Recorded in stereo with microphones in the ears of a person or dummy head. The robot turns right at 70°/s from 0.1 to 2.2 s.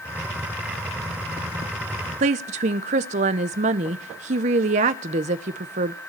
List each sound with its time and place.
2.2 s a woman speaking: 35° right (ahead or behind), 0.8 m